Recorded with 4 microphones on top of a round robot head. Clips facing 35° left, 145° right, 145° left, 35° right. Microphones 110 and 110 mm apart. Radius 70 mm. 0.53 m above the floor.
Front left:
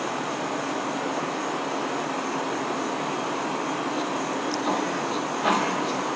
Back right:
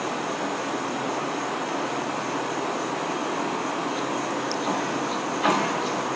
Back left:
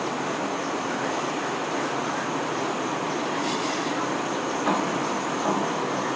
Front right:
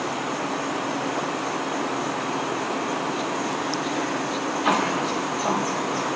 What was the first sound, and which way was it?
Only background noise.